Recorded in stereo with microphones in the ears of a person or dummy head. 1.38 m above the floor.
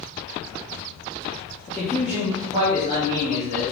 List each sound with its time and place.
1.7 s a man speaking: 20° left (ahead or behind), 0.5 m; by 3.6 s 45° right (ahead or behind), 1.5 m